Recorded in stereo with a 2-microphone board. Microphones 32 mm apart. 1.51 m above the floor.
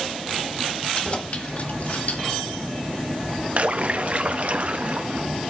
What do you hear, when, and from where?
0.9 s keys jangling: 35° left (ahead or behind), 2.0 m; by 2.4 s 70° left (ahead or behind), 3 m
3.6 s a splash: 50° right (ahead or behind), 1.0 m